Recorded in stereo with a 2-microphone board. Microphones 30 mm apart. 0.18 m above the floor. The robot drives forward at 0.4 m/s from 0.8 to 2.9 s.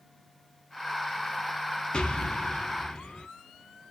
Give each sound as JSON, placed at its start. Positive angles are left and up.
{"t": 1.9, "sound": "an explosion", "side_deg": 35, "distance_m": 0.6}